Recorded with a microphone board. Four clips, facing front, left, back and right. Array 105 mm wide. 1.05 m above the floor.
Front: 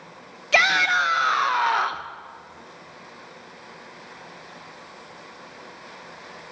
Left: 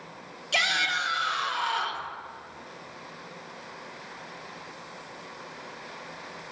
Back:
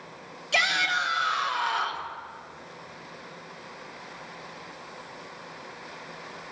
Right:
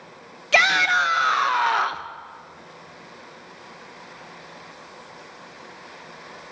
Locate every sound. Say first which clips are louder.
0.5 s a shout: right 9 dB, front 6 dB; 50° right, 0.8 m